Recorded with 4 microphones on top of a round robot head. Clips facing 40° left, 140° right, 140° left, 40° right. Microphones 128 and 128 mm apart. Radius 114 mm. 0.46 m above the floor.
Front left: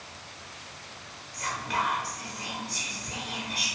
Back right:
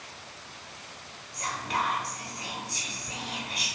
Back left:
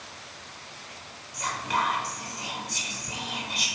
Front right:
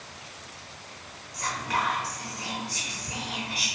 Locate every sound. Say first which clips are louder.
1.3 s whispering: even, back left 1 dB; straight behind, 0.9 m